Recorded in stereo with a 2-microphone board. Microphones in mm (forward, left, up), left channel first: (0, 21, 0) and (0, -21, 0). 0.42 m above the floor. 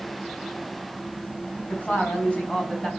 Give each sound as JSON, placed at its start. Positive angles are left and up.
{"t": 1.7, "sound": "a woman speaking", "side_deg": 35, "distance_m": 4.0}